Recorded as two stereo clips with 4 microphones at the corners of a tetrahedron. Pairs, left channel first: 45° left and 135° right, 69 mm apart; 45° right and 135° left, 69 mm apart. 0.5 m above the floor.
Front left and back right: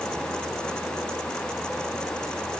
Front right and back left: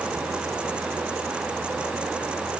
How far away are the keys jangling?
I don't hear keys jangling.